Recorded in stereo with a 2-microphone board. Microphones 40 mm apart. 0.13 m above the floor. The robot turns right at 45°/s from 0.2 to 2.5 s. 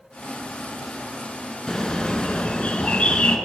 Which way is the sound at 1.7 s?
25° left.